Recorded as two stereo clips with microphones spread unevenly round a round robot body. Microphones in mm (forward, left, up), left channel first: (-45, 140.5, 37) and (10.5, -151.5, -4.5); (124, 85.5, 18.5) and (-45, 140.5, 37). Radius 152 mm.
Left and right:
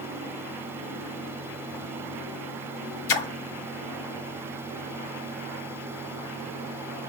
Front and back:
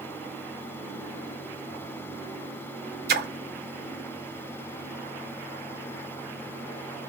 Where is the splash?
125° left, 0.6 m.